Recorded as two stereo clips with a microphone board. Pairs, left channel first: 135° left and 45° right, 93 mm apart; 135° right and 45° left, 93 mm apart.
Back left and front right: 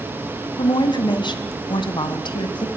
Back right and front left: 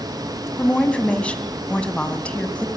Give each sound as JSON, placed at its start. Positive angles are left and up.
{"t": 0.6, "sound": "a woman speaking", "azimuth_deg": 150, "distance_m": 1.8}